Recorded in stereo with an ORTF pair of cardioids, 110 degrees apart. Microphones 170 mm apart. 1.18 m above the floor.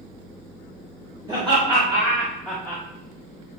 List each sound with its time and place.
1.3 s laughter: 30° right, 1.5 m; by 2.8 s 35° left, 0.6 m